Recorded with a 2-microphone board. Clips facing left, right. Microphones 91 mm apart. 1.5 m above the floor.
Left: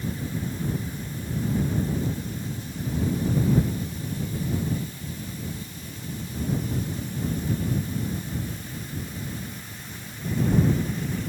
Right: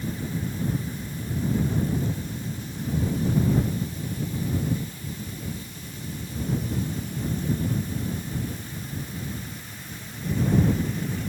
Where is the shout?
I don't hear a shout.